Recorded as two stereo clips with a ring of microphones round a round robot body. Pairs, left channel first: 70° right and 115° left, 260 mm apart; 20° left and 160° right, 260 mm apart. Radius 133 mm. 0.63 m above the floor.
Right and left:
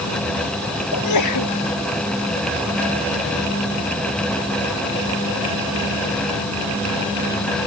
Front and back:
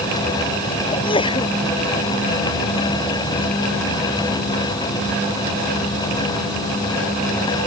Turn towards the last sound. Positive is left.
turn(degrees=-50)